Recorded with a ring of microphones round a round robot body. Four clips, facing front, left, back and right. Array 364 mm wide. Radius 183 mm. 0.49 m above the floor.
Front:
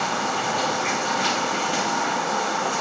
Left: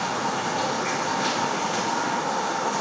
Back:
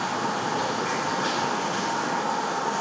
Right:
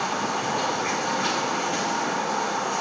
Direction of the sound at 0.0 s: Straight ahead.